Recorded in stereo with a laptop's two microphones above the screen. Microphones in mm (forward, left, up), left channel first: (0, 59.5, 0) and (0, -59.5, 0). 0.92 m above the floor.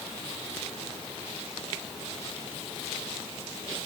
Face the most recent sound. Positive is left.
No sound to turn to.